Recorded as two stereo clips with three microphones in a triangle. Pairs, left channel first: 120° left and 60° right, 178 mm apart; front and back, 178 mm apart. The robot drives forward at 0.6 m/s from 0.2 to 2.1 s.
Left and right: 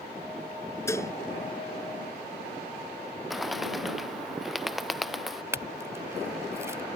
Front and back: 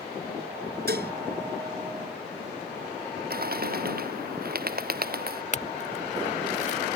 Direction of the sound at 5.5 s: 5° left.